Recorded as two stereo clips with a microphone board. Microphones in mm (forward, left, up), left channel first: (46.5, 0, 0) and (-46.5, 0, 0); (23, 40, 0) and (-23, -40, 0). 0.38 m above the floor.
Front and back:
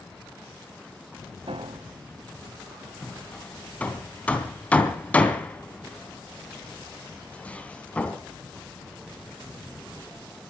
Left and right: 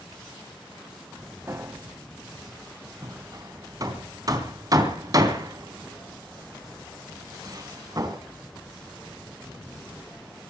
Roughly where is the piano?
Behind.